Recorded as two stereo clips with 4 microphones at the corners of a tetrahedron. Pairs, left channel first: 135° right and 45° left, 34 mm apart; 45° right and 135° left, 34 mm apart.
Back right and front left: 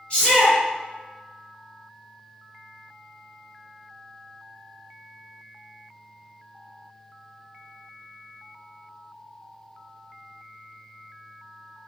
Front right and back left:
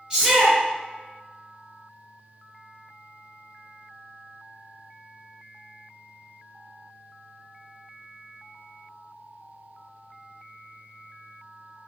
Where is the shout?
Straight behind, 1.4 m.